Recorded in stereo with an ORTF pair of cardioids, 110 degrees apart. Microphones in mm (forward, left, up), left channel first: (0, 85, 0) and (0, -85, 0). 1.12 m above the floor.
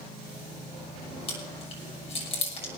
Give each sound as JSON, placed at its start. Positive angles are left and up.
{"t": 1.3, "sound": "chewing", "azimuth_deg": 35, "distance_m": 6.5}